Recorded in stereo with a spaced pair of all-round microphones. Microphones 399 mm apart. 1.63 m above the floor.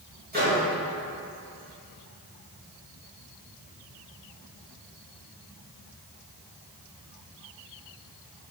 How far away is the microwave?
About 2 m.